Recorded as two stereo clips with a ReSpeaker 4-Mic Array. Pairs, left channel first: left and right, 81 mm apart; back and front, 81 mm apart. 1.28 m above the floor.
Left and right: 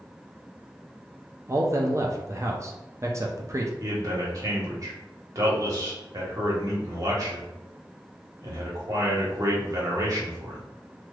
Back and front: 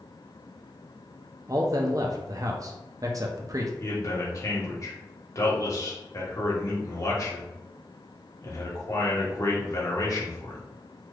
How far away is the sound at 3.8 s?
About 1.1 m.